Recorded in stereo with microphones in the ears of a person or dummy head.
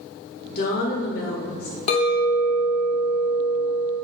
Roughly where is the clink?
Left.